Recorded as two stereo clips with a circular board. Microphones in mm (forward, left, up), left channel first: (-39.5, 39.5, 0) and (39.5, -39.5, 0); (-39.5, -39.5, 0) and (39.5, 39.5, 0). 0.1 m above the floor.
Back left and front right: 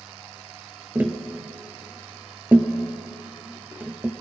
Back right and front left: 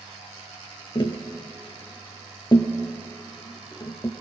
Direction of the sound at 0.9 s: 115° right.